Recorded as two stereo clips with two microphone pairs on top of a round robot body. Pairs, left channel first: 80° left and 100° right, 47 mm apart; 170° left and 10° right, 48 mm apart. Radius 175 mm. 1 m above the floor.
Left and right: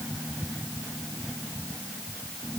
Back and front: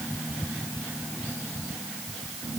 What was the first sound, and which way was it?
Only background noise.